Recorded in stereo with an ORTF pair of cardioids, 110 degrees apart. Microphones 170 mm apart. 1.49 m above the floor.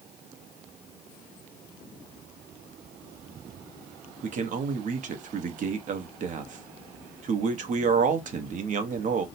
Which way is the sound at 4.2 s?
50° right.